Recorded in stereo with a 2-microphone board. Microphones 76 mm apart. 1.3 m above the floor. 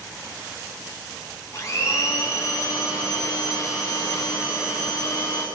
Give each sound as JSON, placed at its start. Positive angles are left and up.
{"t": 1.5, "sound": "a blender", "side_deg": 40, "distance_m": 9.5}